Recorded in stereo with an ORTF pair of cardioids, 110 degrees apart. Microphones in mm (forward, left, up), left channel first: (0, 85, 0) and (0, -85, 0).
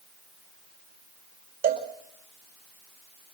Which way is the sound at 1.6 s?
65° right.